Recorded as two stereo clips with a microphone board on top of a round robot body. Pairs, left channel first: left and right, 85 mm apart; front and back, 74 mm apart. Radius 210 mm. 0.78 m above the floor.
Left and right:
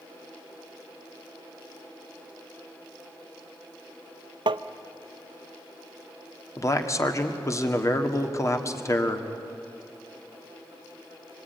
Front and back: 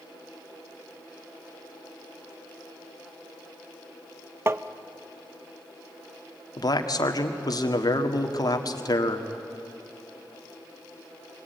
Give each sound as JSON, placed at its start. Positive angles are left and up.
{"t": 4.5, "sound": "tapping", "azimuth_deg": -120, "distance_m": 0.6}
{"t": 6.6, "sound": "a man speaking", "azimuth_deg": 35, "distance_m": 1.9}